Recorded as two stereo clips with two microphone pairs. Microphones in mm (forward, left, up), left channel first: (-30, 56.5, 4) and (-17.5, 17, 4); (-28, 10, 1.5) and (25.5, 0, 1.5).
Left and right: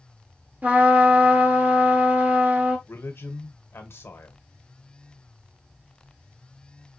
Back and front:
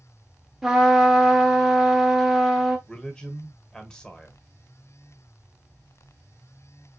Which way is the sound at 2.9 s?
95° left.